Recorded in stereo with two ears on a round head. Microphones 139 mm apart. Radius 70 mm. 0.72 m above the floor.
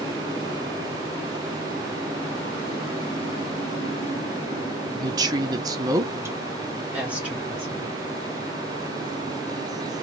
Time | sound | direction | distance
4.9 | a woman speaking | 25° right (ahead or behind) | 0.7 m